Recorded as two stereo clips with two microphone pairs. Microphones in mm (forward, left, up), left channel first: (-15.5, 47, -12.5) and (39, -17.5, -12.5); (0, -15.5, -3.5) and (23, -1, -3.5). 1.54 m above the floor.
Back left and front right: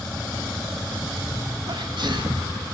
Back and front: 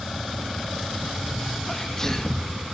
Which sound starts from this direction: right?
A sneeze, at 1.7 s.